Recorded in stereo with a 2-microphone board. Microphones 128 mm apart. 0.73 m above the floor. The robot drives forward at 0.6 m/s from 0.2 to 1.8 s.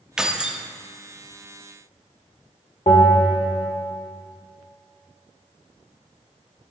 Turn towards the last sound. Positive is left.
turn(degrees=55)  # may be behind; listen again after turning